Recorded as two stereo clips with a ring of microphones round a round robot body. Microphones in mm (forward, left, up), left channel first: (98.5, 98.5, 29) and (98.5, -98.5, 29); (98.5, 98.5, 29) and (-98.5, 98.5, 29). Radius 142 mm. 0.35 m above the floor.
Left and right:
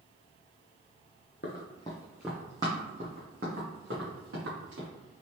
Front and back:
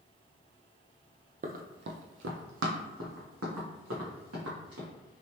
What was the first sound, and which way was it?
Running footsteps, 135° left.